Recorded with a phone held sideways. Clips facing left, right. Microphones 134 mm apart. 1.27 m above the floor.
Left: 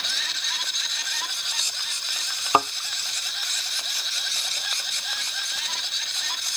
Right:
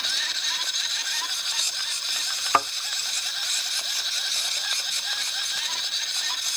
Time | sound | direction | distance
2.5 | a thud | 20° left (ahead or behind) | 0.6 m